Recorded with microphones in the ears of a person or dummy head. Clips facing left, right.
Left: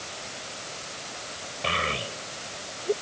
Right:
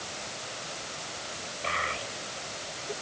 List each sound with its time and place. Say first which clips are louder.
1.6 s a child speaking: left 5 dB; 45° left (ahead or behind); by 2.9 s 55° left (ahead or behind)